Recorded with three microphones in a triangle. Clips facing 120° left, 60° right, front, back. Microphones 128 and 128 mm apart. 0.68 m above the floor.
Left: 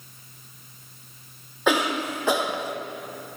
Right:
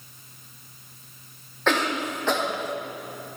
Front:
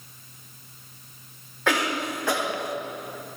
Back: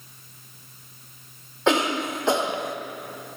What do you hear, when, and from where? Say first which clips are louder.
1.7 s a cough: left 1 dB, back 4 dB; 175° right, 0.6 m